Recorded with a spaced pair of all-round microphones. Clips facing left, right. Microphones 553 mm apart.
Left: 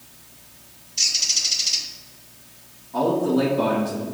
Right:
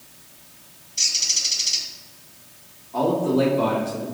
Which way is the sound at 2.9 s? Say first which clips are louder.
Even; 35° left (ahead or behind).